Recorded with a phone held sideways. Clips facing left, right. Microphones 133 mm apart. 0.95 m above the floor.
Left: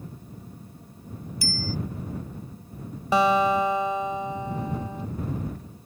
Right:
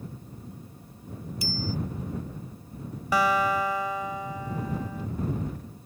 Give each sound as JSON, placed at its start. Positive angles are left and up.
{"t": 1.4, "sound": "a bicycle bell", "side_deg": -20}
{"t": 3.1, "sound": "a guitar", "side_deg": 25}